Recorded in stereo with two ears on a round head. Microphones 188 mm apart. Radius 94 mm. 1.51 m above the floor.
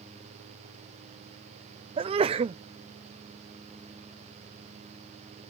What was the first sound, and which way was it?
A sneeze, 25° right (ahead or behind).